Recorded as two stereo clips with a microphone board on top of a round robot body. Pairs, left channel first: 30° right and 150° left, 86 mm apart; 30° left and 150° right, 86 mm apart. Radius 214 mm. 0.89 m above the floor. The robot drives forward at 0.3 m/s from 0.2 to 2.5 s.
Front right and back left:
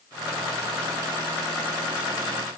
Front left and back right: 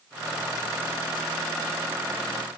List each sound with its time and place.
Only background noise.